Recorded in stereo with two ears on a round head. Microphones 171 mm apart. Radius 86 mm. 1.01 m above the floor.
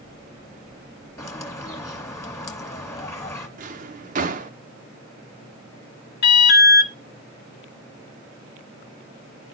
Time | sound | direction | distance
1.2 | a bird | 15° left (ahead or behind) | 1.2 m
3.6 | a drawer | 40° right (ahead or behind) | 0.8 m
6.2 | an alarm | 55° left (ahead or behind) | 2.5 m